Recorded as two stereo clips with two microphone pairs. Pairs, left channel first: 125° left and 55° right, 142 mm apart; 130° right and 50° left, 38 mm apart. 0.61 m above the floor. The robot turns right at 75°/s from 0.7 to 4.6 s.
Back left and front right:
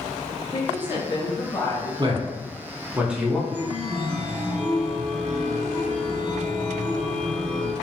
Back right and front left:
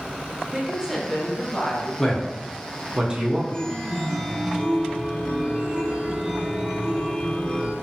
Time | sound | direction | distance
0.5 | a woman speaking | 100° left | 0.8 m
2.0 | a man speaking | 55° right | 0.6 m
3.5 | a chime | 100° right | 0.8 m